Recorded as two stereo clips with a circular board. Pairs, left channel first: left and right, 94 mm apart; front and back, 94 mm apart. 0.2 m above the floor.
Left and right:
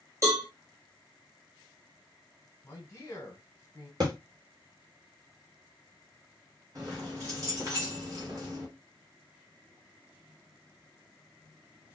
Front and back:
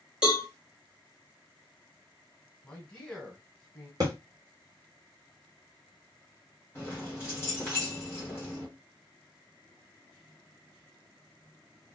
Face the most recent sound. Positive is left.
turn(degrees=-50)